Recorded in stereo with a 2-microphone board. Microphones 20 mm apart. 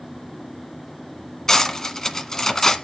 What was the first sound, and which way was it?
Cutlery clinking, 25° left (ahead or behind).